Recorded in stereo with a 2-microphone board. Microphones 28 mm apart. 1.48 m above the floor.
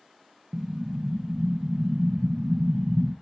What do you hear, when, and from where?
0.5 s an explosion: 55° right (ahead or behind), 0.9 m